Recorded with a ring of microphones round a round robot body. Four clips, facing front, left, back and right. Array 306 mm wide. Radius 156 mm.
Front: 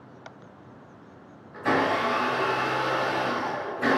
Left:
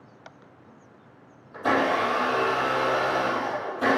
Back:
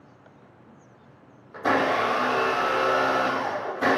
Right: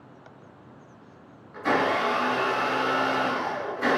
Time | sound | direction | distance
1.5 | a blender | 155° left | 4 m